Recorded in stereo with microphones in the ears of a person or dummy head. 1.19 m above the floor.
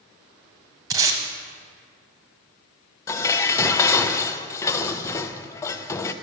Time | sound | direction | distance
0.9 | tape being pulled | 20° right (ahead or behind) | 1.0 m
3.1 | dishes clattering | 15° left (ahead or behind) | 0.5 m